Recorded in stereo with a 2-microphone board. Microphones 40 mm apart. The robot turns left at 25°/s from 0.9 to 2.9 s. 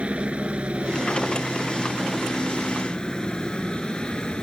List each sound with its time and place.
0.0 s a helicopter: 30° right (ahead or behind); by 4.4 s 20° left (ahead or behind)